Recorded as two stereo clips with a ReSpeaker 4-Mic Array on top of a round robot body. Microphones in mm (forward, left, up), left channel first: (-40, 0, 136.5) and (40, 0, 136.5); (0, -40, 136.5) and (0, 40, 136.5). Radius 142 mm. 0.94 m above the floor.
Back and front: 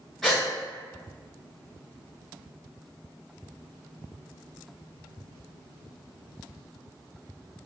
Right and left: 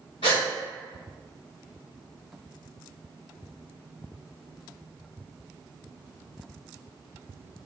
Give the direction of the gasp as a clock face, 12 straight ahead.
3 o'clock.